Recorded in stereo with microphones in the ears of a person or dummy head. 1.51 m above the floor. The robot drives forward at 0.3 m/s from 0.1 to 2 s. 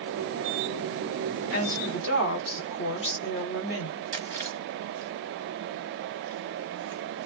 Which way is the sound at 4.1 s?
15° left (ahead or behind).